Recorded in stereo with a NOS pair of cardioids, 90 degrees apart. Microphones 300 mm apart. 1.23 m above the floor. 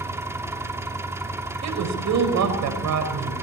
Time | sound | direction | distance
0.0 | an engine running | 10° right | 3 m
1.6 | a woman speaking | 65° right | 5.5 m